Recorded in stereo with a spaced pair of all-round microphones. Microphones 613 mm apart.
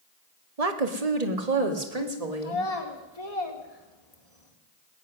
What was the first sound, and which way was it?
A woman speaking, 75° right (ahead or behind).